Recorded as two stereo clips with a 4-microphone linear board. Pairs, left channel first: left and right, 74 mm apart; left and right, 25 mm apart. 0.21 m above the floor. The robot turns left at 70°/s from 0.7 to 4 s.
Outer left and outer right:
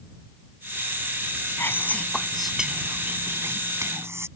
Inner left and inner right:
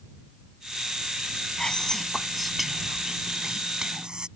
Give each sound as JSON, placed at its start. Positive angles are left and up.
{"t": 1.6, "sound": "whispering", "azimuth_deg": 60}